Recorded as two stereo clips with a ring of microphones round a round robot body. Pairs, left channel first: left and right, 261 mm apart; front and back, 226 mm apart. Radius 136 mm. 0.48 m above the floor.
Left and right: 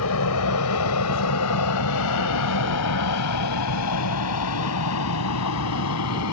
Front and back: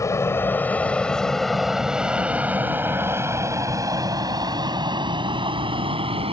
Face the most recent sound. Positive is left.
turn(degrees=115)